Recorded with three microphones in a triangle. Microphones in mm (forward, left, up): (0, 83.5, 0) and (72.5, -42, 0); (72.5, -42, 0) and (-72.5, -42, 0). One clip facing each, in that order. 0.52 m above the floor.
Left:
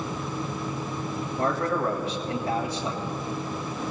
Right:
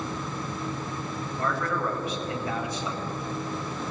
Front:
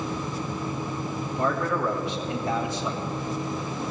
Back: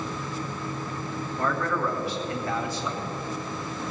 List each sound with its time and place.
1.4 s a man speaking: 65° left, 2.5 m